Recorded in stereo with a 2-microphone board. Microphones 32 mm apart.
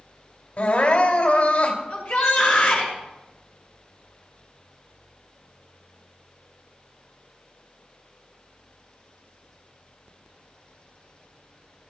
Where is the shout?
45° left (ahead or behind), 4 m.